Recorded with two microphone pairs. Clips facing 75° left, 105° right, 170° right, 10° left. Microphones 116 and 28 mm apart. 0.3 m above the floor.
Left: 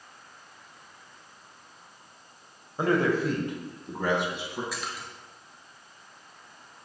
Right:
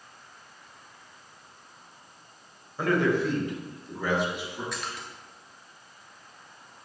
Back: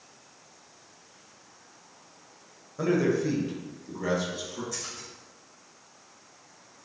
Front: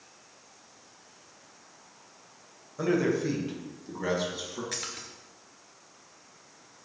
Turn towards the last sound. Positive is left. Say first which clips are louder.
# even, front 1 dB
turn(degrees=-10)